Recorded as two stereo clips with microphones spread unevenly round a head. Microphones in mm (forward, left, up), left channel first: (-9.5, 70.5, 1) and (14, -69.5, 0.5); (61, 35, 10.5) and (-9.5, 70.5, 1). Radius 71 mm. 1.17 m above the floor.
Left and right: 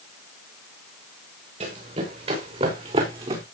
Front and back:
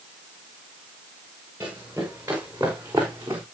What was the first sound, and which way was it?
Running footsteps, 125° right.